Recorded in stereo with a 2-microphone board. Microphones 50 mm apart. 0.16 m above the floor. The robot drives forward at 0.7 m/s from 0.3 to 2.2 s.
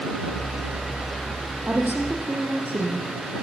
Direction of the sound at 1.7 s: 35° right (ahead or behind).